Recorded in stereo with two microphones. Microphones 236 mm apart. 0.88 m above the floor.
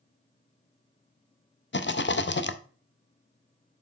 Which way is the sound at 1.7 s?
55° left (ahead or behind).